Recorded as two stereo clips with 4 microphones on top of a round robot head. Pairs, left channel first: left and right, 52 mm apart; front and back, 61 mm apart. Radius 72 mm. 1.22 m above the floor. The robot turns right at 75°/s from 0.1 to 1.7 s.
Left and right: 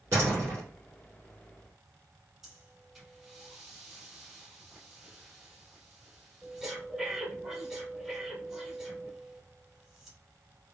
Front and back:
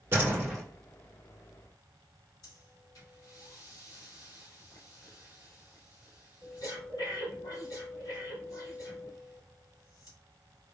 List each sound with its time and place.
0.1 s a door slam: 130° right, 3 m; by 0.6 s 90° right, 3 m
2.4 s breathing: 5° right, 3 m